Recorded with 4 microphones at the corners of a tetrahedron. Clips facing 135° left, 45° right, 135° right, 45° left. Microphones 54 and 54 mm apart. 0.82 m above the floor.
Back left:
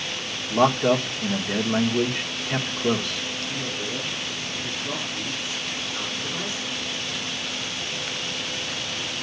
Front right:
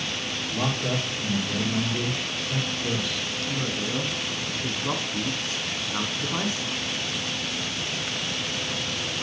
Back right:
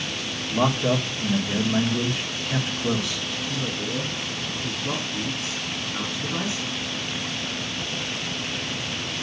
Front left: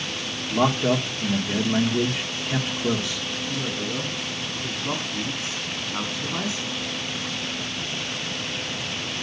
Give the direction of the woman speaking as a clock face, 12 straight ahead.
1 o'clock.